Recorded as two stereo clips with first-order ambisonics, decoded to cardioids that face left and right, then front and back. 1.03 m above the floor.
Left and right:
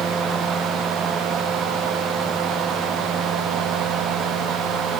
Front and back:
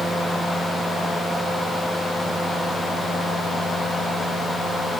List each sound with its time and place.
Only background noise.